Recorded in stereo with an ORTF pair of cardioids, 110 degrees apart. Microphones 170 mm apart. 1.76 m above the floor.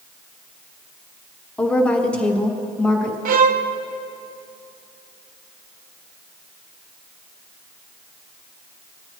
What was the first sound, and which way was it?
A woman speaking, 5° left.